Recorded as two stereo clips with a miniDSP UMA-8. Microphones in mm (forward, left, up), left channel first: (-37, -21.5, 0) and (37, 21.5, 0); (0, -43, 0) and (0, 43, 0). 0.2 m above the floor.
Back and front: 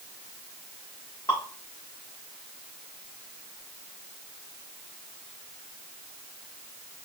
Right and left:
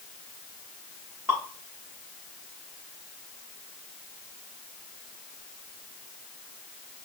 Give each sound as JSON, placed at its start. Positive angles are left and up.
{"t": 1.3, "sound": "dripping", "azimuth_deg": 150, "distance_m": 5.5}